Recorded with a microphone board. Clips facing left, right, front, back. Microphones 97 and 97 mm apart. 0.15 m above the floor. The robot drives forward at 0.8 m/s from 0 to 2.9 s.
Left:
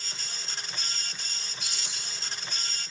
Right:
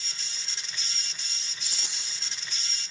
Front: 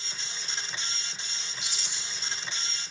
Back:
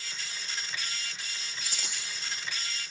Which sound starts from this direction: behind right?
A rattle, at 1.6 s.